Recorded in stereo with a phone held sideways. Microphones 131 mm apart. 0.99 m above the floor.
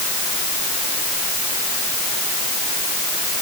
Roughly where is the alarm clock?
I don't hear an alarm clock.